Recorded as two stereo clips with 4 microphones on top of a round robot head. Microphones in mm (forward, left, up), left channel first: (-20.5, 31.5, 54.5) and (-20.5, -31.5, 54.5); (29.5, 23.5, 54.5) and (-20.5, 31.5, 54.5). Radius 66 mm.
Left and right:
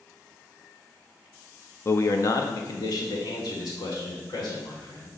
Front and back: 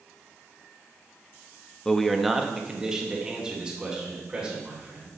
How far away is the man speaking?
About 0.6 m.